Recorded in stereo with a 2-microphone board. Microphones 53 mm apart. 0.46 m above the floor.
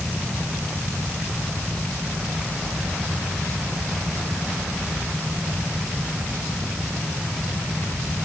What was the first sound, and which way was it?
Only background noise.